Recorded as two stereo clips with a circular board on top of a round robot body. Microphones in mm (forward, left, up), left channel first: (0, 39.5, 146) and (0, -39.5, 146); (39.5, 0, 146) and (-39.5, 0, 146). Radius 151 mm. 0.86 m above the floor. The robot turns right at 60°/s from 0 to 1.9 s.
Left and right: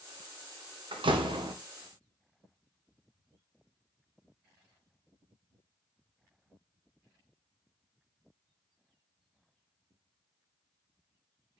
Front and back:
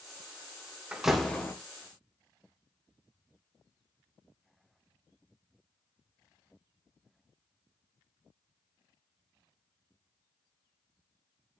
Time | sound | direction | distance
0.9 | a door slam | 100° right | 1.5 m